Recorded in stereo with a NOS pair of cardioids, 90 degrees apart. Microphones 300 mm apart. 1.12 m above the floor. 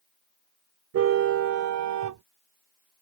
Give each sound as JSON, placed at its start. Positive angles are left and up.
{"t": 0.9, "sound": "a car horn", "azimuth_deg": -55}